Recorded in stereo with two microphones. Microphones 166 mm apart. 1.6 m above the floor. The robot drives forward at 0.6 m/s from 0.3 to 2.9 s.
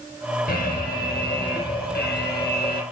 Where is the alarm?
65° left (ahead or behind), 2 m; by 2.8 s 70° left (ahead or behind), 2 m.